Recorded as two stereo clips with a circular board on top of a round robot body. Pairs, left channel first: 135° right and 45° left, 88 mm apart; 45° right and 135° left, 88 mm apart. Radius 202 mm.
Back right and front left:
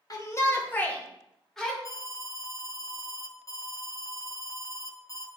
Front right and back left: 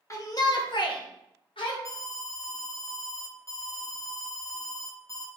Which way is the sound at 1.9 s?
90° right.